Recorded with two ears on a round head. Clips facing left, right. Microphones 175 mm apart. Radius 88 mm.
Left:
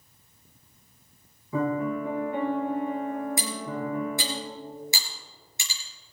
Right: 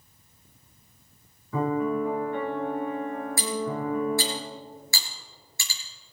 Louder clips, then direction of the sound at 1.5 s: Right 1 dB; 10° left (ahead or behind).